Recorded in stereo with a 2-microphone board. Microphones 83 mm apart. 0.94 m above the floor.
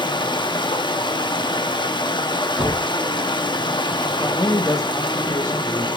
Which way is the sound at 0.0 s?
70° left (ahead or behind).